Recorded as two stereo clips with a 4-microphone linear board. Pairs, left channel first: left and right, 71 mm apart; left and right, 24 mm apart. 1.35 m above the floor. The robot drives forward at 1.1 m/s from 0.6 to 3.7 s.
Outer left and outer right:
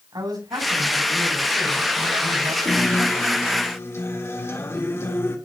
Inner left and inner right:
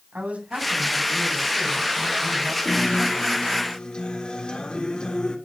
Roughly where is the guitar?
Left.